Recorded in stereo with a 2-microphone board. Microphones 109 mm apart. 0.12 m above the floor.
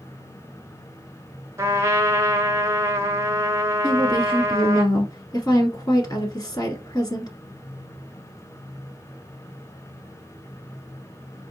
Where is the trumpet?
30° right (ahead or behind), 0.8 m.